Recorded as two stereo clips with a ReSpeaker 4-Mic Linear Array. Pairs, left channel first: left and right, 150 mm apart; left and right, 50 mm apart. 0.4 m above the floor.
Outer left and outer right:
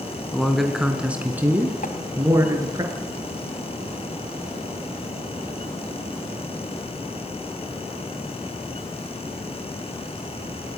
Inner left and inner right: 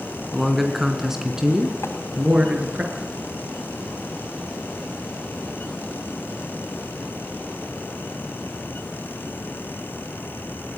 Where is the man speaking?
Centre (ahead or behind), 3.5 m; by 2.8 s 25° right (ahead or behind), 5 m.